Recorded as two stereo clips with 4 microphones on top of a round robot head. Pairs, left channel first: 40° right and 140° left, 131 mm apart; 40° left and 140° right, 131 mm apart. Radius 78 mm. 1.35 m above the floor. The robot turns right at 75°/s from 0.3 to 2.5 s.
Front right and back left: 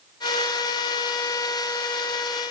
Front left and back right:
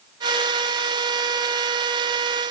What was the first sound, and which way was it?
Only background noise.